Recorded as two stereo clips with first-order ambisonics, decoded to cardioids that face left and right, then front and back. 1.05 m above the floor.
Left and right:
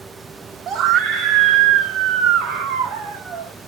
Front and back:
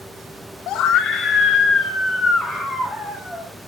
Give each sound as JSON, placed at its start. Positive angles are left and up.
{"t": 0.7, "sound": "a scream", "azimuth_deg": -40, "distance_m": 0.5}